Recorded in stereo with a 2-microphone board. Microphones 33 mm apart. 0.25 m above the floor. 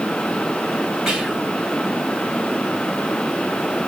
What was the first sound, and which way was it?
Whispering, 15° right (ahead or behind).